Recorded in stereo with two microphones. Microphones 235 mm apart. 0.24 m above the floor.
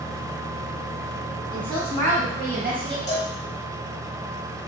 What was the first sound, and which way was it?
A woman speaking, 25° right (ahead or behind).